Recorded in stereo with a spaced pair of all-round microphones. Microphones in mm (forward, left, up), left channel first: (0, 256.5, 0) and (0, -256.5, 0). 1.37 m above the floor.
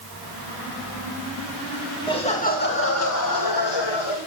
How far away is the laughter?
About 2.5 m.